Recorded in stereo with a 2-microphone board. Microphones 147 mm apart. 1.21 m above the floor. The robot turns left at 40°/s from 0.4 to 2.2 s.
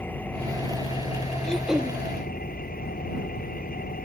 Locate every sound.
0.0 s an engine running: 170° left; by 4.1 s 95° left
1.4 s throat clearing: 5° left (ahead or behind); by 2.0 s 15° right (ahead or behind)